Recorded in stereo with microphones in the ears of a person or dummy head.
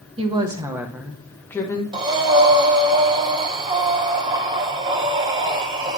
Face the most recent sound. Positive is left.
turn(degrees=-25)  # may be behind; listen again after turning